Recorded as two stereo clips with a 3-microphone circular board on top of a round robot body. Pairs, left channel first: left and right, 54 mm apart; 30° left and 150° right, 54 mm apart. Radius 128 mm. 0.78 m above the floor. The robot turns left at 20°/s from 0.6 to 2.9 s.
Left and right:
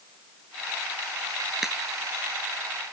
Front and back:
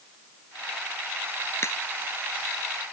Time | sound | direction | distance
1.6 | a crack | 5° right | ?